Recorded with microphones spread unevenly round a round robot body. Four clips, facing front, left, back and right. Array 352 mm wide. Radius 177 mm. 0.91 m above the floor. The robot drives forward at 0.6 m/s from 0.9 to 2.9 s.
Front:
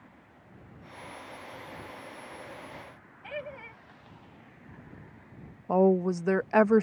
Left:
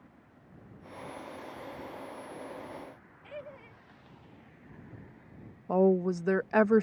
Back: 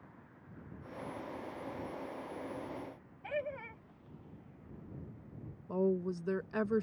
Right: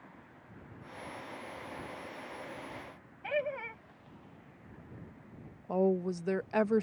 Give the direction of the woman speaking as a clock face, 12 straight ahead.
11 o'clock.